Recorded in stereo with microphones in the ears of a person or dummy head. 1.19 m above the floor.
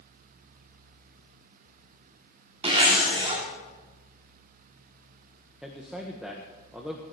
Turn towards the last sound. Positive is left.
turn(degrees=-5)  # may be behind; listen again after turning